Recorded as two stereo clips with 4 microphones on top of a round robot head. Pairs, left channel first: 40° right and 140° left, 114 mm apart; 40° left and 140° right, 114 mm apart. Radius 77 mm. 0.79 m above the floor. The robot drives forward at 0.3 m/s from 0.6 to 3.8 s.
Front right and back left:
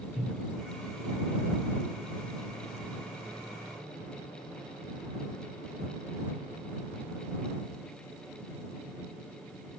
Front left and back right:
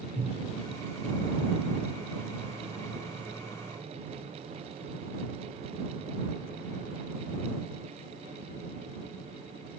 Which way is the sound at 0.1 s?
130° right.